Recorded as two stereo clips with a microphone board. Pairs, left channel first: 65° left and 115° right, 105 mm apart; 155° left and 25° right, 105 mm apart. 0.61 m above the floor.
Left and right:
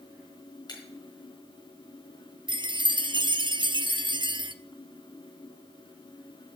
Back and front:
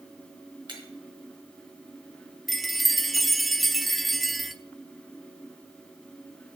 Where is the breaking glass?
20° left, 4 m.